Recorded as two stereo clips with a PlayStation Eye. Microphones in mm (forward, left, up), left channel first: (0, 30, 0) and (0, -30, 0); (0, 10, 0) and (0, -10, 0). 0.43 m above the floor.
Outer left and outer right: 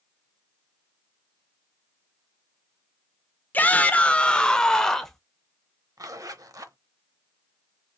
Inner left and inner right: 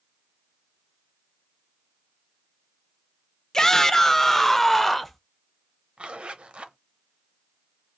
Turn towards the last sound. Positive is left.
turn(degrees=-65)  # may be behind; listen again after turning